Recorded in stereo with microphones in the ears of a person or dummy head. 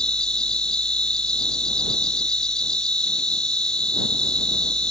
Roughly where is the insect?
Centre.